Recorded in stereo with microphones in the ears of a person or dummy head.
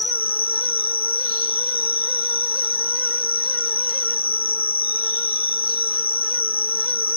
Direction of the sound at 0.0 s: 25° left (ahead or behind).